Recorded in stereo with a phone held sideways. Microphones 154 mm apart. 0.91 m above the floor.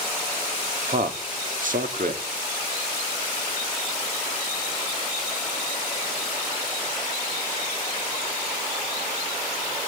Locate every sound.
0.9 s a man speaking: 60° right (ahead or behind), 2 m